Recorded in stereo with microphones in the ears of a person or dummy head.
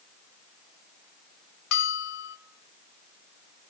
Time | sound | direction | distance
1.7 | a bell | 60° left (ahead or behind) | 1.2 m